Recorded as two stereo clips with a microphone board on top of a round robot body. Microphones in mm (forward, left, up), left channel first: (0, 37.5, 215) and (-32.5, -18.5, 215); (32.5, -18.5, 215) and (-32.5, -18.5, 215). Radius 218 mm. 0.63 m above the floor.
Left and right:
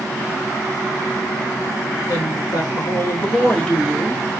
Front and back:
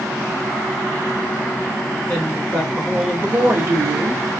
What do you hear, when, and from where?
2.1 s a woman speaking: 65° left, 1.3 m; by 4.2 s 150° left, 1.5 m